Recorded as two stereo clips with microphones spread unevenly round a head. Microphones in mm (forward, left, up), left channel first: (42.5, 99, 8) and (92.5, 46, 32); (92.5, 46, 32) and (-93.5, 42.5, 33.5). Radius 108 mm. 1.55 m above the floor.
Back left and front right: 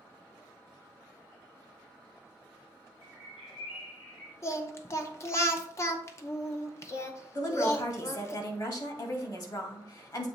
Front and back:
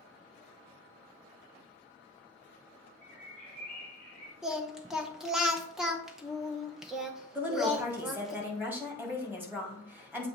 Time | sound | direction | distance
3.0 | a bird | 135° left | 2.5 m
4.4 | singing | 100° left | 0.7 m
7.3 | a woman speaking | 100° left | 2.5 m